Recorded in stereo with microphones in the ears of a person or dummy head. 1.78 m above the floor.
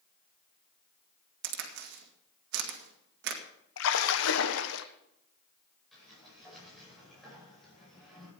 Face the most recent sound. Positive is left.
turn(degrees=0)  # may be behind; listen again after turning